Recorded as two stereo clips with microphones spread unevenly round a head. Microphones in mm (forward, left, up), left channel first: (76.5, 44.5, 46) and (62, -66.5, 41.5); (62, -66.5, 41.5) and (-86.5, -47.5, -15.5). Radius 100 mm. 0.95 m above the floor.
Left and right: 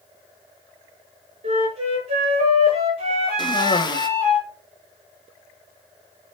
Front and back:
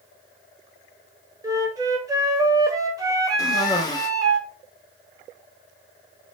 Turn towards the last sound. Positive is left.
turn(degrees=75)